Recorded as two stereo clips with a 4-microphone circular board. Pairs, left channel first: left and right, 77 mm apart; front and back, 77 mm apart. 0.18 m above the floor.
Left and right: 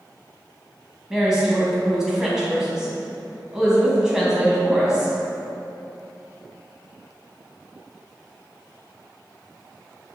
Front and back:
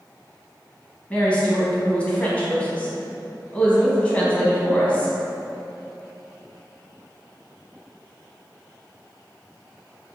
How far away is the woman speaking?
About 1.0 m.